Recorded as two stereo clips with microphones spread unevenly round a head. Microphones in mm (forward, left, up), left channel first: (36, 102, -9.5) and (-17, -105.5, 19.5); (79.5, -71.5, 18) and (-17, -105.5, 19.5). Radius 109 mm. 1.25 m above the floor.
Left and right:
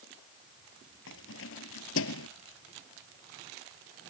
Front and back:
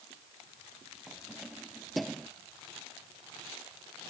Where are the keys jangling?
115° left; by 2.3 s 110° left.